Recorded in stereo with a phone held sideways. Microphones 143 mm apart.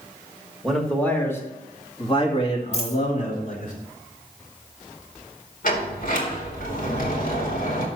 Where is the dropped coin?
50° left (ahead or behind), 3 m.